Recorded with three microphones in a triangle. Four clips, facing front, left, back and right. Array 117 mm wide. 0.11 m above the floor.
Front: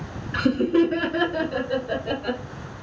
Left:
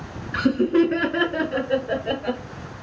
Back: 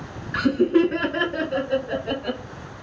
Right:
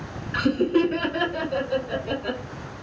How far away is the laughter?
About 1.2 m.